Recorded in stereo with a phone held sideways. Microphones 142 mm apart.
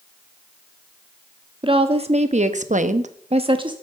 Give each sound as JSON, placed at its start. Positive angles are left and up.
{"t": 1.6, "sound": "a woman speaking", "side_deg": -40, "distance_m": 1.4}